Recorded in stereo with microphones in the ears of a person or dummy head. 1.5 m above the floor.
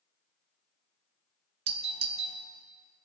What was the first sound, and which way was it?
A doorbell, 35° right (ahead or behind).